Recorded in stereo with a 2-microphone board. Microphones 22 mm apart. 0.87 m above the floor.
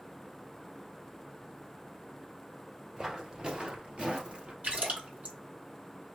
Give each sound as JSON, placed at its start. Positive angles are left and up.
{"t": 3.0, "sound": "footsteps", "side_deg": -30, "distance_m": 1.2}
{"t": 4.6, "sound": "a splash", "side_deg": -90, "distance_m": 1.9}